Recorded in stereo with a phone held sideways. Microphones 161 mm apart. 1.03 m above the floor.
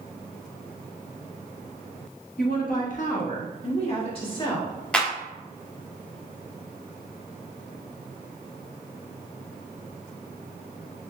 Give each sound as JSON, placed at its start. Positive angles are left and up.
{"t": 2.4, "sound": "a woman speaking", "side_deg": 65, "distance_m": 1.0}
{"t": 4.9, "sound": "a clap", "side_deg": 5, "distance_m": 0.7}